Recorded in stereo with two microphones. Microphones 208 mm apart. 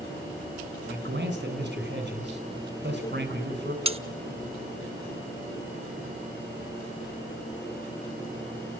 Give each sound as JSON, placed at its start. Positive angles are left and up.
{"t": 0.9, "sound": "a man speaking", "side_deg": -60, "distance_m": 3.0}
{"t": 3.9, "sound": "cutlery clinking", "side_deg": -30, "distance_m": 0.6}